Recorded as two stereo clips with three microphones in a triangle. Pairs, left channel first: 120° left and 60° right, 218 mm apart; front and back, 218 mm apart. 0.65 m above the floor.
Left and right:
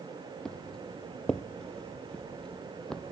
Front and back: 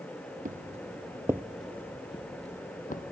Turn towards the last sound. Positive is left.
turn(degrees=35)